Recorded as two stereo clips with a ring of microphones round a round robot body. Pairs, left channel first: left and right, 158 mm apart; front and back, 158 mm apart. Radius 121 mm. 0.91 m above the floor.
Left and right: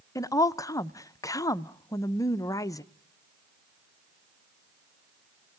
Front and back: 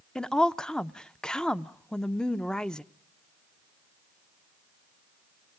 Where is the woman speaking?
80° left, 0.7 m.